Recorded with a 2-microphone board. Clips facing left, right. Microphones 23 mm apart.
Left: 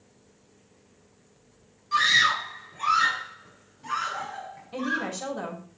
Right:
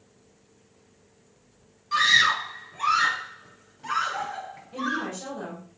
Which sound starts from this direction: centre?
A scream, at 1.9 s.